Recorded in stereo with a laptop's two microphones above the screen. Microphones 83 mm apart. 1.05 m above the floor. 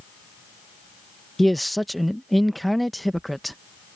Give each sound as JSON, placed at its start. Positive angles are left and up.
{"t": 1.4, "sound": "a man speaking", "side_deg": 0}